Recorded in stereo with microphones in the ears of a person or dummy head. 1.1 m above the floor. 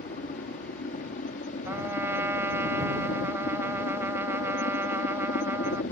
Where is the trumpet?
20° right (ahead or behind).